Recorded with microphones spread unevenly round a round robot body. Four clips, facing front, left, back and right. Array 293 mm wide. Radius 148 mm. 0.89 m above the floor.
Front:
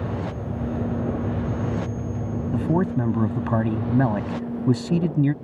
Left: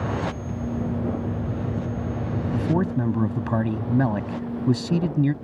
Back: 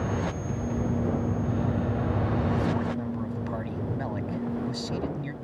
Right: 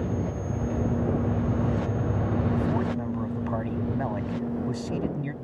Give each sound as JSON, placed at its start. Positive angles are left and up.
{"t": 2.5, "sound": "a man speaking", "azimuth_deg": 40}